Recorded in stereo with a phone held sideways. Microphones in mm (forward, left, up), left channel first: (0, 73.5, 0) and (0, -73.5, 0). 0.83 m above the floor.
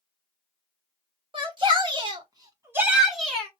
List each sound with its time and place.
1.3 s a shout: 35° right (ahead or behind), 1.9 m; by 3.5 s 10° left (ahead or behind), 1.1 m